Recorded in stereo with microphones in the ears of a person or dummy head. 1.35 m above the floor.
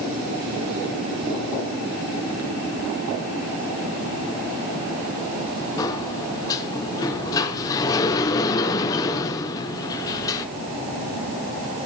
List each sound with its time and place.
5.8 s a sliding door: 25° left (ahead or behind), 0.8 m